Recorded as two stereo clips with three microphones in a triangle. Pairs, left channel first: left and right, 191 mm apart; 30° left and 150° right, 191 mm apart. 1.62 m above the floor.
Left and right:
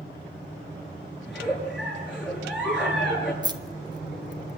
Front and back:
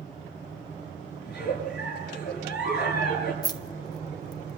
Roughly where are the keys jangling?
Ahead right.